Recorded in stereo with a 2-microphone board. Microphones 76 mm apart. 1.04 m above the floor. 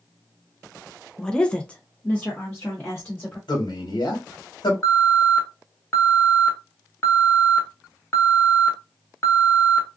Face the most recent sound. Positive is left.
turn(degrees=35)  # may be behind; listen again after turning